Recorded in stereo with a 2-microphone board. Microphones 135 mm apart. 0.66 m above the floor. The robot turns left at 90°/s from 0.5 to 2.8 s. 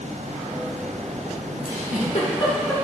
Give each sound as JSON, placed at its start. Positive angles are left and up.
{"t": 1.6, "sound": "a giggle", "side_deg": 65, "distance_m": 1.8}